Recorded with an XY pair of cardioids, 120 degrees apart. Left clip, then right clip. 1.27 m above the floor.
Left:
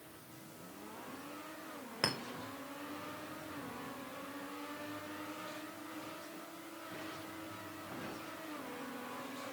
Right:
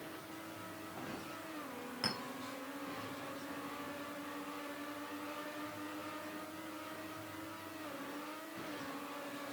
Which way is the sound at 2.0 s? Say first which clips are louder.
Left 3 dB; 50° left.